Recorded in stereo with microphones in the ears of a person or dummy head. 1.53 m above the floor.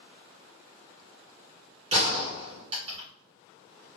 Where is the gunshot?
40° right (ahead or behind), 1.8 m.